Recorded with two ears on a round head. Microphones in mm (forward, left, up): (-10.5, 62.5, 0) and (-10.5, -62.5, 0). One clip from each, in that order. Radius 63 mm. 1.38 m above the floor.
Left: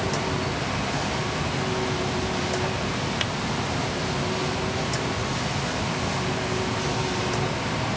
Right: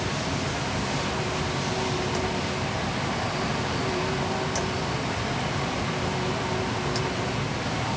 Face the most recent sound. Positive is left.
No sound to turn to.